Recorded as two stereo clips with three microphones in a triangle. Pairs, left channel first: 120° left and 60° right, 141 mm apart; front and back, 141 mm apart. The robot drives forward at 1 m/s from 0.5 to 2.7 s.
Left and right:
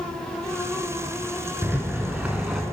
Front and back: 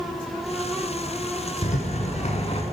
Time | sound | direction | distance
1.6 | a rattle | 15° left | 2.5 m